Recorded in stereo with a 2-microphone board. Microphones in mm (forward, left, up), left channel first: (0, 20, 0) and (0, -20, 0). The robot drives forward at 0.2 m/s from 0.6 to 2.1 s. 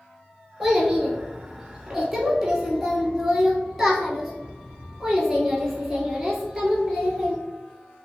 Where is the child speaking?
5° right (ahead or behind), 1.0 m.